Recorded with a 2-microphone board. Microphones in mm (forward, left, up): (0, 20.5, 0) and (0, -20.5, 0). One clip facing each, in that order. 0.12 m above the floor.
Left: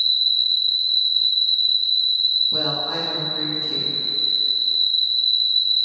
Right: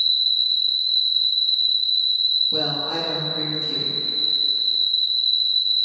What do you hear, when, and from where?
0.0 s an insect: 65° left (ahead or behind), 1.0 m
2.5 s a woman speaking: 10° left (ahead or behind), 1.1 m